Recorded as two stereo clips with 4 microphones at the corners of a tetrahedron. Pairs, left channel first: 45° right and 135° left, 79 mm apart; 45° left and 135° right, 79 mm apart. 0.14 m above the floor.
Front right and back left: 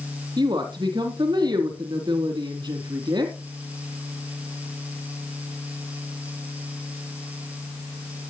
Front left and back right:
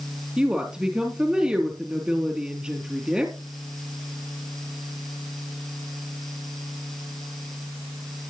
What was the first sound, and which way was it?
A woman speaking, 145° left.